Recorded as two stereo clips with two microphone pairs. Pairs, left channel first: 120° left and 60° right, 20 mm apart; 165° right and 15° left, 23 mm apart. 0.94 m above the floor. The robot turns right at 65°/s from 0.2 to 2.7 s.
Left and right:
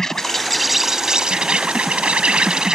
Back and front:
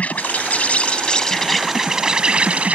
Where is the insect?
170° right; by 2.8 s 10° right.